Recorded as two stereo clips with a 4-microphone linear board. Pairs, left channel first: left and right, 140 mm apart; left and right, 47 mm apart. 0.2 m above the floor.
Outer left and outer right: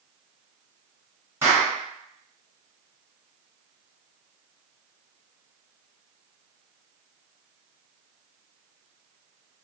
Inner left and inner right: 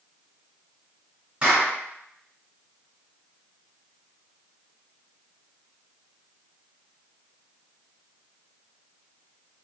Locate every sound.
1.4 s a clap: 20° right (ahead or behind), 2 m